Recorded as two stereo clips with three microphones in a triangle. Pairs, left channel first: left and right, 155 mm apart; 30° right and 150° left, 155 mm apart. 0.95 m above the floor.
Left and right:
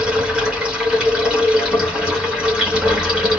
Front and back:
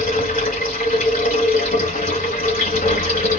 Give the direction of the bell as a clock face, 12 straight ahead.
I don't hear a bell.